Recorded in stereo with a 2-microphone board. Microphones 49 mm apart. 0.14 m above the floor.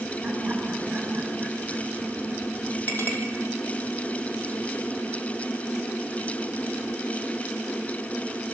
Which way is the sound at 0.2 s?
10° right (ahead or behind).